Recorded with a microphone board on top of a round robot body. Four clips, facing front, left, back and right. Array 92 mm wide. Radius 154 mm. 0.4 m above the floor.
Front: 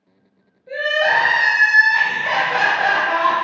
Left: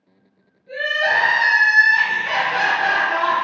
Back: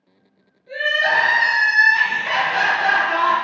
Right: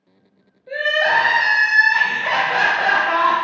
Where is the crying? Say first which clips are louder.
Right 2 dB, front 1 dB; 65° right, 0.6 m.